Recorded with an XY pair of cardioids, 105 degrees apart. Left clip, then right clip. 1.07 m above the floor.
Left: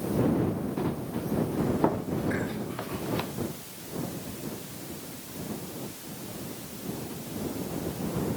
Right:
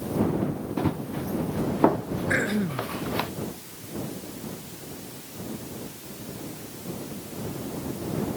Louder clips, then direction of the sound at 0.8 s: Right 3 dB; 35° right.